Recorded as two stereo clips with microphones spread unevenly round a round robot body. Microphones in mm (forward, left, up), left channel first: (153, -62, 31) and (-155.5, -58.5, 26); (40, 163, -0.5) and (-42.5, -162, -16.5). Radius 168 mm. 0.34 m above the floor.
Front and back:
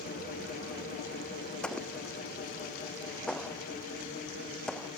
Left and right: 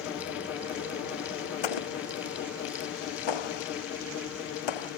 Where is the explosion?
85° left.